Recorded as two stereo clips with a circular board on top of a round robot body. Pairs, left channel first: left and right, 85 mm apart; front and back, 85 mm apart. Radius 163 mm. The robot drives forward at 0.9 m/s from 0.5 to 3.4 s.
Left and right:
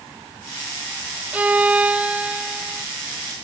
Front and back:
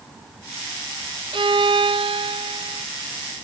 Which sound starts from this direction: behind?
A violin, at 1.3 s.